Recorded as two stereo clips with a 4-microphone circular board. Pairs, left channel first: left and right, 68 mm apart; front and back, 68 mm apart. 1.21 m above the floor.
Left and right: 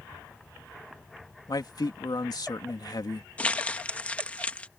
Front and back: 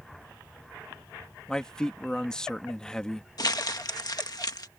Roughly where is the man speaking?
Left.